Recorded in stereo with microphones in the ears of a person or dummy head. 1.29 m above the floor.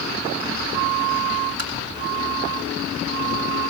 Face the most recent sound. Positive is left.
turn(degrees=-75)  # may be behind; listen again after turning